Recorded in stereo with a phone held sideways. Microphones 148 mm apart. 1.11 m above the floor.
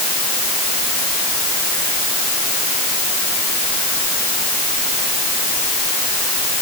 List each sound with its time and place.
Only background noise.